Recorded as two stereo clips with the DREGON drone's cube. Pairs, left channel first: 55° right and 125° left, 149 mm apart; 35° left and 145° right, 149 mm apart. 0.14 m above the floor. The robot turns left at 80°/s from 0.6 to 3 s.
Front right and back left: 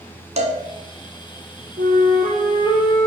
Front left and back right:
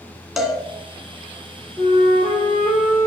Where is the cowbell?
125° left, 1.0 m.